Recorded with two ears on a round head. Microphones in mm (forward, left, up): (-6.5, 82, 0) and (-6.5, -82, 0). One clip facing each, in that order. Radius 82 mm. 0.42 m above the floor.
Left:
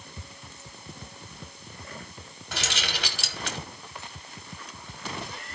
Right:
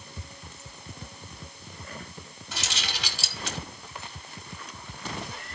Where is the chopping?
I don't hear chopping.